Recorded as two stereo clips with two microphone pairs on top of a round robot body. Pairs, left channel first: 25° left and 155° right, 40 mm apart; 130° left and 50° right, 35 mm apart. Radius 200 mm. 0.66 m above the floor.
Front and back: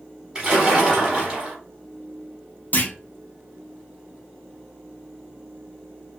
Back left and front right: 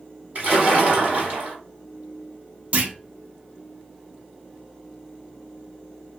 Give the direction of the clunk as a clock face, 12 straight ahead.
1 o'clock.